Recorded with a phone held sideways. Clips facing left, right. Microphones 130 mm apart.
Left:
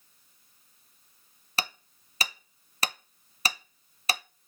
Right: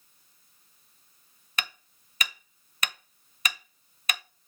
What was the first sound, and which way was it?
Hammering, 30° left (ahead or behind).